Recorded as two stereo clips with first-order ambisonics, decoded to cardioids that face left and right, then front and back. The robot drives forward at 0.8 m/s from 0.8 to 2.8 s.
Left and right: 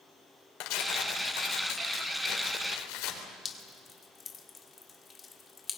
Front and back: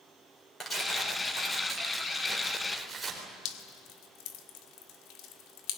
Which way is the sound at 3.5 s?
20° left.